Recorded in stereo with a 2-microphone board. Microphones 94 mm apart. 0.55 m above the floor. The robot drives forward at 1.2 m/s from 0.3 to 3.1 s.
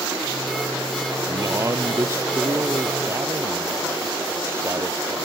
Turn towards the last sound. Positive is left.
turn(degrees=-25)  # may be behind; listen again after turning